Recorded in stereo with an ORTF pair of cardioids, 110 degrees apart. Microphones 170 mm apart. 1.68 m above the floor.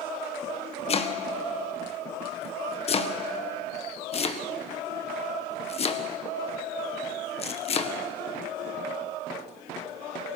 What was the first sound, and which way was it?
Chopping, 35° left.